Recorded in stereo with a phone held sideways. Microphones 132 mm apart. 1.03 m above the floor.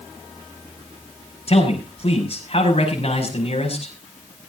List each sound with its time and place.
1.5 s a man speaking: 50° left (ahead or behind), 5.5 m